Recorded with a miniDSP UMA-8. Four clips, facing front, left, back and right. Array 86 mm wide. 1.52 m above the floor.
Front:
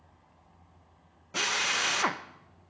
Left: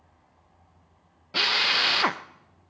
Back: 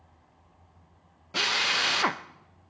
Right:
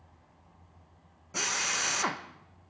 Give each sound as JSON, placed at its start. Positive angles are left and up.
{"t": 1.3, "sound": "a drill", "azimuth_deg": 110, "distance_m": 0.7}